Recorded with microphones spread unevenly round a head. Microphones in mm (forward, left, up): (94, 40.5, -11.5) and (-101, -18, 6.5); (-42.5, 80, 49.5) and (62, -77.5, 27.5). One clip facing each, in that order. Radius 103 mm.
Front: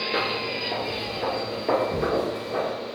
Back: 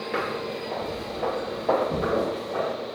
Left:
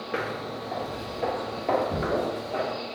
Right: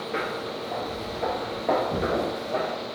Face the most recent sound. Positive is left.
turn(degrees=-170)